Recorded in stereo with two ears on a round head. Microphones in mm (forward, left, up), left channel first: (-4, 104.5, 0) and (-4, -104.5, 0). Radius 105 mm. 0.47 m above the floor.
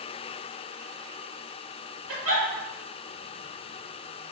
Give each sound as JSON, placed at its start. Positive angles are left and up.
{"t": 2.1, "sound": "a giggle", "side_deg": -60, "distance_m": 1.2}